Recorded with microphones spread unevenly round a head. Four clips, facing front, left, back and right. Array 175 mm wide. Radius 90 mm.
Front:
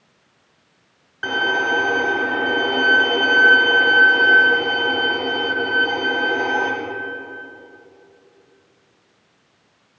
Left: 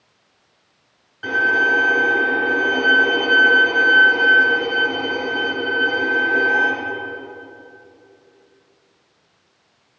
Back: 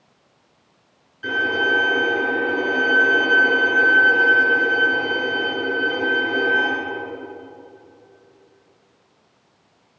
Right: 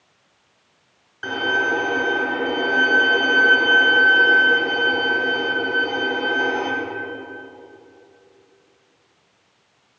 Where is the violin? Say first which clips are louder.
Left 4 dB, front 1 dB; 5° right, 2 m.